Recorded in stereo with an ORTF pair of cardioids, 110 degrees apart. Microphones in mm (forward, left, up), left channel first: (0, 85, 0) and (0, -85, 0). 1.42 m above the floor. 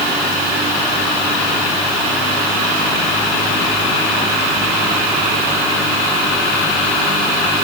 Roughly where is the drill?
I don't hear a drill.